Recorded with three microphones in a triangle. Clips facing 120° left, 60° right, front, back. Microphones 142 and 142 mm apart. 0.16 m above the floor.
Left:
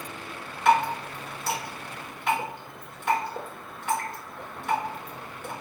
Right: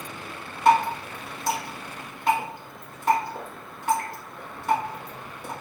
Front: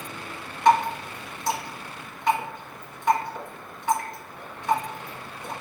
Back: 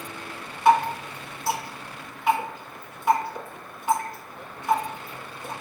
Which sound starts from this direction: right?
Dripping, at 0.7 s.